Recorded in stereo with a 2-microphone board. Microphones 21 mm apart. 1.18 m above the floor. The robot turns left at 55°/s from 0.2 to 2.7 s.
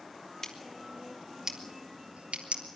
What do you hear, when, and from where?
0.4 s scissors: 30° left (ahead or behind), 2.5 m; by 2.6 s 80° right, 2.5 m